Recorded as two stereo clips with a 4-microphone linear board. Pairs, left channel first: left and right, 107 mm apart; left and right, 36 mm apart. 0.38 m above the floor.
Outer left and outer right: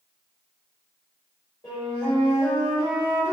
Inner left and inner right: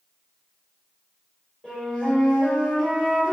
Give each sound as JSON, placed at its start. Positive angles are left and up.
{"t": 1.6, "sound": "a flute", "side_deg": 30, "distance_m": 1.5}